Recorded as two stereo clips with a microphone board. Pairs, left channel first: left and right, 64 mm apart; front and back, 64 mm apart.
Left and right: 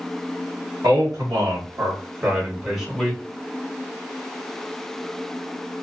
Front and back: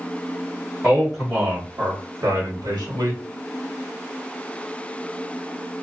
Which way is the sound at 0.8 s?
105° right.